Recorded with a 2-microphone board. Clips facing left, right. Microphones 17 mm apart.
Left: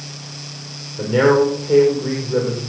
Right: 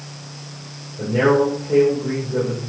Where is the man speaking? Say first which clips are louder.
Left 2 dB; 55° left (ahead or behind), 8.5 m.